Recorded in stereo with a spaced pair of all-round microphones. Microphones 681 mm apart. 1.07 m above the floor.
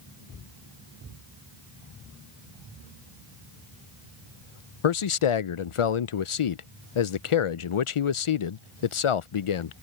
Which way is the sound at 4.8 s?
50° left (ahead or behind).